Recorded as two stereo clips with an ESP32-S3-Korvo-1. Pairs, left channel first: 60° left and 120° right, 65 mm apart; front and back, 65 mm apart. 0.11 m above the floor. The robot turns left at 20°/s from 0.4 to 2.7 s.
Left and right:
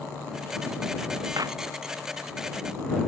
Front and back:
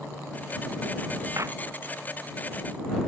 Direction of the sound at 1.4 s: 140° right.